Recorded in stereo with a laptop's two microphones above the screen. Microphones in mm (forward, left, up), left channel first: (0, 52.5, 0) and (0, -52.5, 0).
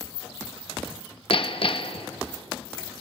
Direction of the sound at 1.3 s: 55° left (ahead or behind).